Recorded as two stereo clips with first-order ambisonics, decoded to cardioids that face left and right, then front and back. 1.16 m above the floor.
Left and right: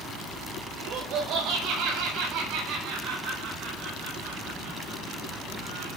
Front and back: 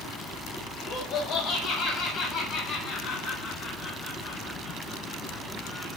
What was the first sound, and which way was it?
Laughter, 50° right.